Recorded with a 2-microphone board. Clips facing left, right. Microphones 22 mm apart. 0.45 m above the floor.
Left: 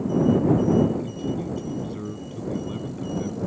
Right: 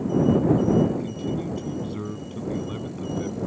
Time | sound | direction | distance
0.9 | a man speaking | 15° right (ahead or behind) | ?